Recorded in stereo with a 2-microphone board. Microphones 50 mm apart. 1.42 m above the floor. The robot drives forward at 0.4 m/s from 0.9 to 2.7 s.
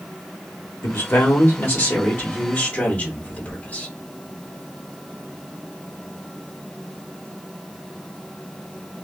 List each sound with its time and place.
0.8 s a man speaking: 55° left (ahead or behind), 1.0 m; by 3.9 s 35° left (ahead or behind), 1.5 m